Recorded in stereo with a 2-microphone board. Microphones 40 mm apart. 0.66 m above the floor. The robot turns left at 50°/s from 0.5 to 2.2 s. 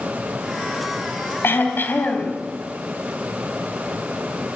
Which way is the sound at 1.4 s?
85° left.